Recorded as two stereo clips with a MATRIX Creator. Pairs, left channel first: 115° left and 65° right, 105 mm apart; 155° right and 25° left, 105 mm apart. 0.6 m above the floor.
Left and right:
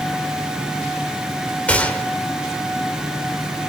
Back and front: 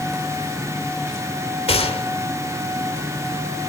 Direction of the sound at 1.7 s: 170° right.